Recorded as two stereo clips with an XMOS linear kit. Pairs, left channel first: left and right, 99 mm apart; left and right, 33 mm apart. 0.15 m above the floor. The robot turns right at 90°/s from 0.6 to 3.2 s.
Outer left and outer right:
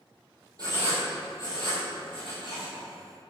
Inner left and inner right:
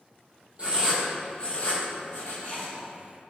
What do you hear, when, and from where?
0.6 s writing: 40° right (ahead or behind), 1.1 m; by 2.8 s 20° left (ahead or behind), 1.1 m